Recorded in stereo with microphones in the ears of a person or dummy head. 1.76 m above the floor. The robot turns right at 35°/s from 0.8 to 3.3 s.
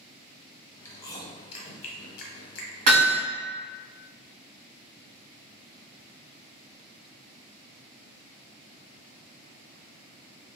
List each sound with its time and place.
0.8 s chewing: 15° left (ahead or behind), 0.7 m; by 2.8 s 70° left (ahead or behind), 0.7 m
2.9 s hammering: 45° right (ahead or behind), 1.5 m; by 3.2 s 55° right (ahead or behind), 1.5 m